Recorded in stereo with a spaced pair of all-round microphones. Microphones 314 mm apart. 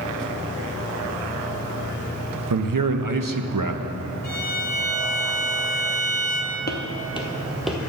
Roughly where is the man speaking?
Right.